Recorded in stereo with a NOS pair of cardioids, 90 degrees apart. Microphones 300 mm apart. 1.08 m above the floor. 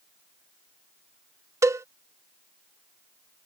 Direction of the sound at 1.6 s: 10° right.